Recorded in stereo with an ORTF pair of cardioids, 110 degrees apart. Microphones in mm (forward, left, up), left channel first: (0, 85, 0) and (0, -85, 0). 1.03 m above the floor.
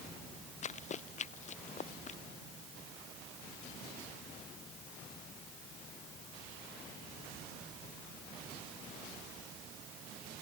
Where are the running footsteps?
45° left.